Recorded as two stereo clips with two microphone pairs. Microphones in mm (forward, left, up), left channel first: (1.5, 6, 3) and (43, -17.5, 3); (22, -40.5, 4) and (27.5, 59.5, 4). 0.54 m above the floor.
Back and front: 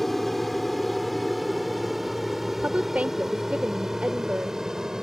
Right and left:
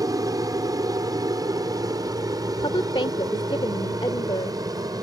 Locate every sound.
0.0 s an aircraft: 65° left; by 5.0 s 45° left
2.5 s a woman speaking: 85° right